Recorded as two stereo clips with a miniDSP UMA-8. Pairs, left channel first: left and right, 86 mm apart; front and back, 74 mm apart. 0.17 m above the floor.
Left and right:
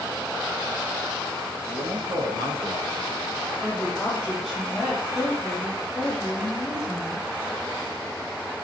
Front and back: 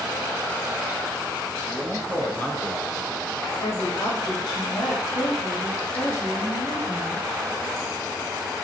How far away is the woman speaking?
About 5 m.